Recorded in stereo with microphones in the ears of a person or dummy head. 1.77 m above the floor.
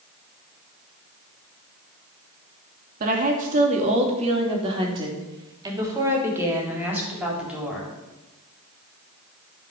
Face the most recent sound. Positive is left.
turn(degrees=-10)  # may be behind; listen again after turning